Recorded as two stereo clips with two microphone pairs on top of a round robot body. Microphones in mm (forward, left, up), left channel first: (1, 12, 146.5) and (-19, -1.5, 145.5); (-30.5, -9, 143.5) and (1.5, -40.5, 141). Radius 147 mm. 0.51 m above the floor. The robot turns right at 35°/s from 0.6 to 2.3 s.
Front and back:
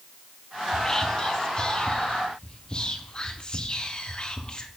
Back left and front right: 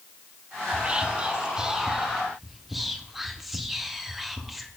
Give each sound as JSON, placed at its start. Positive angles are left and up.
{"t": 0.7, "sound": "whispering", "azimuth_deg": -20, "distance_m": 1.0}